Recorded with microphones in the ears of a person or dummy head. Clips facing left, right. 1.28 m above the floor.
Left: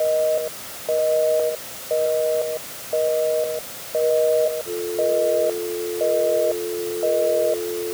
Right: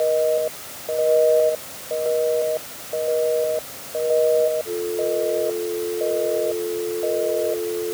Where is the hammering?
I don't hear hammering.